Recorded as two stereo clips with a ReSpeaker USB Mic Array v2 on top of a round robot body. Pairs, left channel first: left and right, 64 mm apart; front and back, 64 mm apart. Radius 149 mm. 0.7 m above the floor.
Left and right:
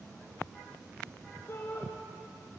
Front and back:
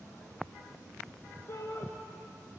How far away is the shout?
About 2.5 m.